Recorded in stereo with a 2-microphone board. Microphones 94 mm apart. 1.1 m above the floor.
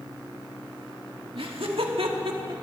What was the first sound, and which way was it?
Laughter, 80° right.